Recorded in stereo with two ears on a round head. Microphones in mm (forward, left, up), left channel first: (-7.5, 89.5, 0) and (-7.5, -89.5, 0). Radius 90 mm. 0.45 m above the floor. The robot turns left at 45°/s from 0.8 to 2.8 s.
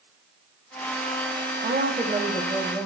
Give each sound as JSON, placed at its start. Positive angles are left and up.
{"t": 1.6, "sound": "a woman speaking", "azimuth_deg": -135, "distance_m": 2.5}